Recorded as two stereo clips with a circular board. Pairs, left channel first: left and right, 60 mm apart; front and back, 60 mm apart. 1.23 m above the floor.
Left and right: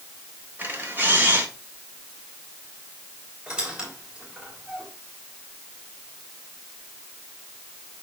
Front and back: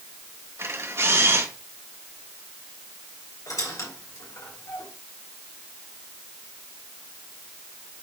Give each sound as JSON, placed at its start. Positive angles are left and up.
{"t": 0.6, "sound": "a camera shutter", "azimuth_deg": -145, "distance_m": 3.5}
{"t": 3.5, "sound": "a squeak", "azimuth_deg": -15, "distance_m": 3.5}